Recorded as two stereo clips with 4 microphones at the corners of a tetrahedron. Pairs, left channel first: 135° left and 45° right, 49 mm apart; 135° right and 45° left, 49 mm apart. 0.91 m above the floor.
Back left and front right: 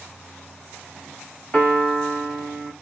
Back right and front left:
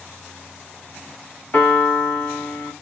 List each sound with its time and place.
1.5 s a piano: 165° right, 1.4 m